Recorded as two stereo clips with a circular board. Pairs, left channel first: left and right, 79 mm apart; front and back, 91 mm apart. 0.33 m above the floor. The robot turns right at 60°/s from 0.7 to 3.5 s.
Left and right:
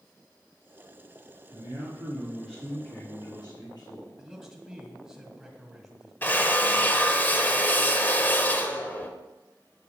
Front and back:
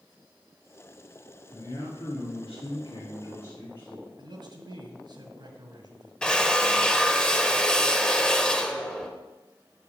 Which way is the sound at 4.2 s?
175° right.